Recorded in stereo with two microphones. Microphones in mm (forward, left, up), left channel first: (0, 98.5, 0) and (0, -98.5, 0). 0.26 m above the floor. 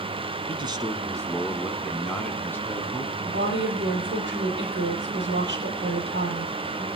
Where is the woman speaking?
65° right (ahead or behind), 8.5 m.